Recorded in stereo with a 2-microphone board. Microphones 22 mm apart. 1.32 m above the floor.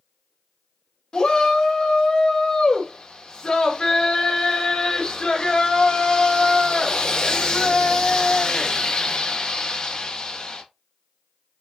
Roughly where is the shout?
Left.